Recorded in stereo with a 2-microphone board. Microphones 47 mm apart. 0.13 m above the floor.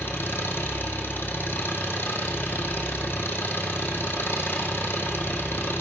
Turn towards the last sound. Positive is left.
turn(degrees=55)  # may be behind; listen again after turning